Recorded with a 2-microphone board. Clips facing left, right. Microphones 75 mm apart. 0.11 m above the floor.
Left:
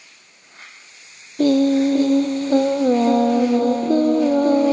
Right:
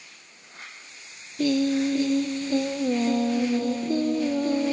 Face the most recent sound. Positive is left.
turn(degrees=50)  # may be behind; listen again after turning